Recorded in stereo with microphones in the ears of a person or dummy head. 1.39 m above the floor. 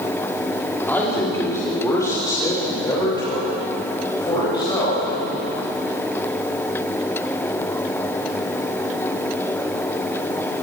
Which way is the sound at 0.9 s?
10° left (ahead or behind).